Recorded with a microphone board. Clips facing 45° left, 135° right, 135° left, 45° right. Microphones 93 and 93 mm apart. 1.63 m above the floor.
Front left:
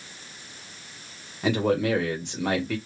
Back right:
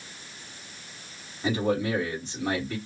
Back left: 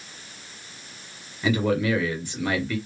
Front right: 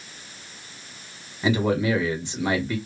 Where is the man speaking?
25° left, 1.7 m.